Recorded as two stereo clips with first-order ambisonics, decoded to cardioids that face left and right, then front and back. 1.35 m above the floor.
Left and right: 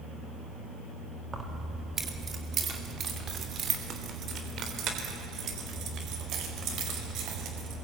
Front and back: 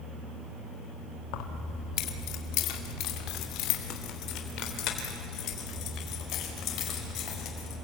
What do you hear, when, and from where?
1.3 s keys jangling: 15° right, 2 m; by 7.8 s 45° right, 5.5 m